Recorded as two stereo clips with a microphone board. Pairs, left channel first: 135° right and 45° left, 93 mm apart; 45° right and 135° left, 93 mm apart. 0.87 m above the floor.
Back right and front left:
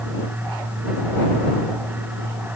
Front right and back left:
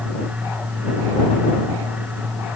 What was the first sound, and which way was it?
Only background noise.